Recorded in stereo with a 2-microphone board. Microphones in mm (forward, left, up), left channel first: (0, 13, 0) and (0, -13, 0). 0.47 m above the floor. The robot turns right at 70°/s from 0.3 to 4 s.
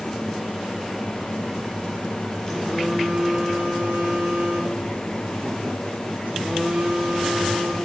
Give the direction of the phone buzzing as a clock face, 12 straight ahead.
7 o'clock.